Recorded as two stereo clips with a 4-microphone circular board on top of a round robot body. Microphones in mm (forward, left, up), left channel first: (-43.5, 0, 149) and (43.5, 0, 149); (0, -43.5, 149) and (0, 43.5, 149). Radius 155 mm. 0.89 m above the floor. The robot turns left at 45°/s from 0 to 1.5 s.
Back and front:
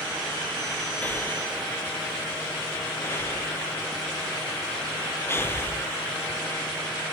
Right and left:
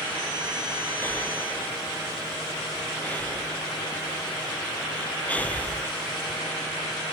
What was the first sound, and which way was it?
Breathing, 125° right.